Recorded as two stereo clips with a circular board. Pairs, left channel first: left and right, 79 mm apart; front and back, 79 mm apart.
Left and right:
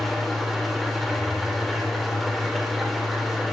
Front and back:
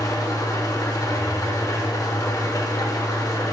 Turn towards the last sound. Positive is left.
turn(degrees=0)